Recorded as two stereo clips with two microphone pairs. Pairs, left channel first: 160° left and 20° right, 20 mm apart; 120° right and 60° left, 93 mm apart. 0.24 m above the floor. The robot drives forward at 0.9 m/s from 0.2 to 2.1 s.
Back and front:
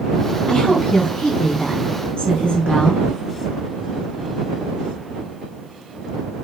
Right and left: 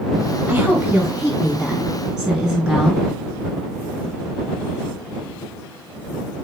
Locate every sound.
0.5 s a woman speaking: 135° left, 2.5 m; by 3.0 s 155° left, 3.5 m